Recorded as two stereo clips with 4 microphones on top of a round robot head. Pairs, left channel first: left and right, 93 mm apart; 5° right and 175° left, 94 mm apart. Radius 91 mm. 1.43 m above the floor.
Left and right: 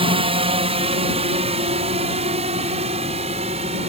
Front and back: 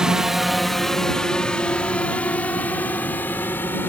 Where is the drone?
100° right; by 3.9 s 80° right.